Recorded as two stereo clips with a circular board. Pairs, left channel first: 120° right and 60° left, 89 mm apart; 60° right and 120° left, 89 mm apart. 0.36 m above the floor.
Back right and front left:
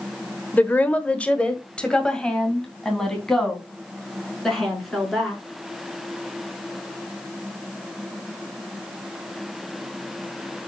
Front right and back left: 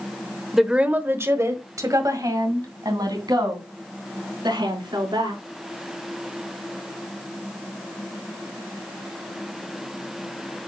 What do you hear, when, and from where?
0.5 s a woman speaking: 155° right, 0.9 m; by 5.4 s 155° left, 4.5 m